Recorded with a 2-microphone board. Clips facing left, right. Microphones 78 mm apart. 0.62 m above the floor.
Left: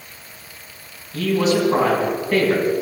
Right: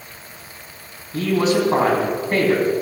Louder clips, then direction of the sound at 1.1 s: Even; 35° right (ahead or behind).